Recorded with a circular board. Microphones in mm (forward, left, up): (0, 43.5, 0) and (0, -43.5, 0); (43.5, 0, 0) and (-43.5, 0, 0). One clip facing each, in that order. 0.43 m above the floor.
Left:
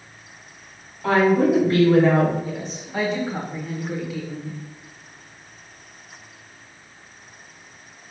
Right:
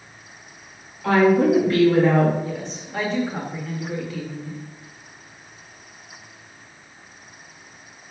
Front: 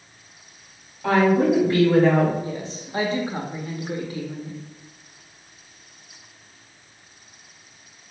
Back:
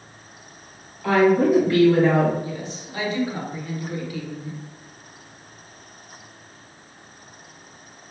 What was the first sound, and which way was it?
A woman speaking, 55° left.